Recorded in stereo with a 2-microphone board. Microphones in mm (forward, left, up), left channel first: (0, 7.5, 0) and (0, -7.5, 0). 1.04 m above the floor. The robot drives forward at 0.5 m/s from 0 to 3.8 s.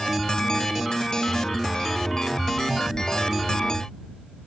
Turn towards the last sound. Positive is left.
No sound to turn to.